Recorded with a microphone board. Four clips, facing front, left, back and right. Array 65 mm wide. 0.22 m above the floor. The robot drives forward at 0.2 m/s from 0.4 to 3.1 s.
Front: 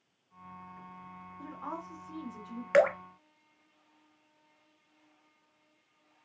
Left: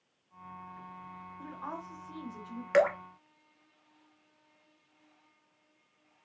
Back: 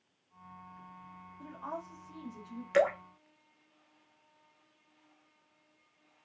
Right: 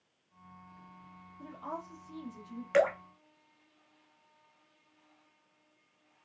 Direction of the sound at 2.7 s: 25° left.